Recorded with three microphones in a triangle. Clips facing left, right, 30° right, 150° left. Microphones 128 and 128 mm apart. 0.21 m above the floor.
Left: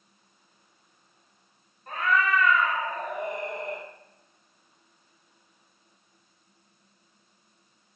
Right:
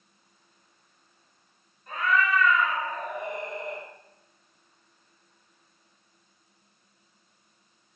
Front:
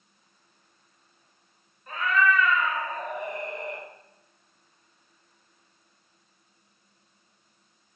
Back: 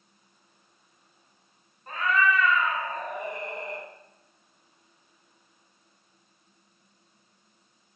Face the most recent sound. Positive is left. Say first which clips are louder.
# even, front 1 dB
turn(degrees=105)